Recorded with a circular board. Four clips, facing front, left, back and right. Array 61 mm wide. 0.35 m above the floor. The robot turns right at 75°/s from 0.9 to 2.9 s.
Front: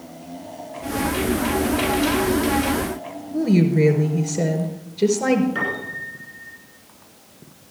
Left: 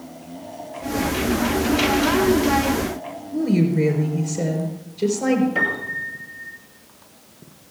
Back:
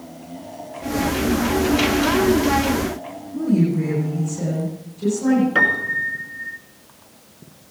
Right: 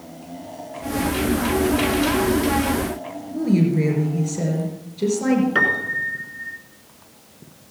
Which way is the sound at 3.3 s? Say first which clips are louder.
Even, front 1 dB; straight ahead.